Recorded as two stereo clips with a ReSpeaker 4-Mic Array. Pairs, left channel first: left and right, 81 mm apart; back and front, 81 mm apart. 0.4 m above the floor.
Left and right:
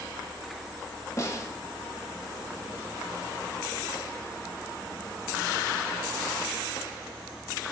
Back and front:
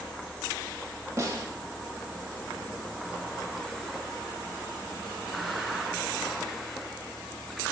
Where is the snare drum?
45° left, 1.4 m.